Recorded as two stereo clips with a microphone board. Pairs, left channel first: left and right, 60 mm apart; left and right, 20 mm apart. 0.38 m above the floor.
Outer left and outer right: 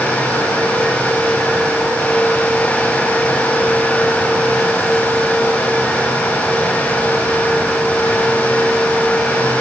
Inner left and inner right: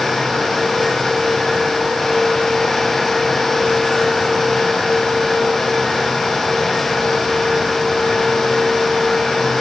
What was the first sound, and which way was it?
Only background noise.